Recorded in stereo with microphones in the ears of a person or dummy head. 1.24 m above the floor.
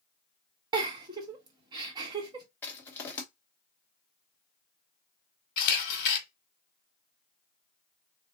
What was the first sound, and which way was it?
A giggle, 25° right (ahead or behind).